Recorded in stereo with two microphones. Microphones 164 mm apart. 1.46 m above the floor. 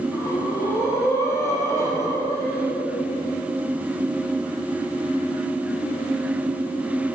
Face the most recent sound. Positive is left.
turn(degrees=20)  # may be behind; listen again after turning